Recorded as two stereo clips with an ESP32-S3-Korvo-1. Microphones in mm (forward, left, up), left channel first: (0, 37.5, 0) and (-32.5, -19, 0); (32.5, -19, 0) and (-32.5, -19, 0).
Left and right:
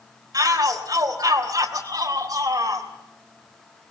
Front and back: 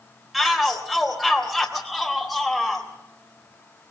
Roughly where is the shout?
Right.